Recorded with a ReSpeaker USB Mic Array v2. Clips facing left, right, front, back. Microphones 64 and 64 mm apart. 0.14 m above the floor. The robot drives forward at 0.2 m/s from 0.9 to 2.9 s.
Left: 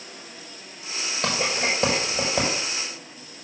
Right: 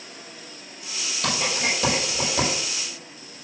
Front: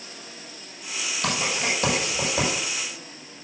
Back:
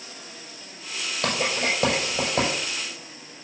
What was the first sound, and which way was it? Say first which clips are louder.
Writing: left 1 dB, back 2 dB; 150° left.